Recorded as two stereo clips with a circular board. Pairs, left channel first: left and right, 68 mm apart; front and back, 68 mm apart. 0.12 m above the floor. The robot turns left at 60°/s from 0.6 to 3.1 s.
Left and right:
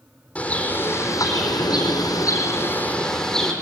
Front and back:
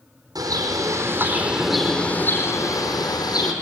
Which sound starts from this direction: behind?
A bird, at 0.3 s.